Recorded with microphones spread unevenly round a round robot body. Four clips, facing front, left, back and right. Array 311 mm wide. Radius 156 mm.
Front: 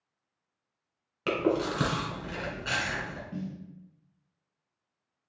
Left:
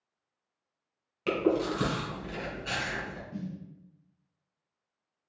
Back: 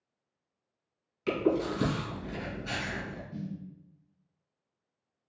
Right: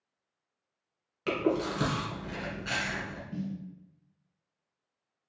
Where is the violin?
I don't hear a violin.